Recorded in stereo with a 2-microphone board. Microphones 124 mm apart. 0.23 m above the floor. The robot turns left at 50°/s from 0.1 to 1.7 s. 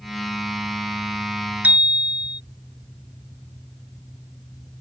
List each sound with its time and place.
1.6 s a bicycle bell: 15° right (ahead or behind); by 2.4 s 10° right (ahead or behind)